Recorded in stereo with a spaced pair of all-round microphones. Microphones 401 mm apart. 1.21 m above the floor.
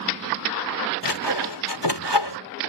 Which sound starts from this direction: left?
Sawing, at 1.0 s.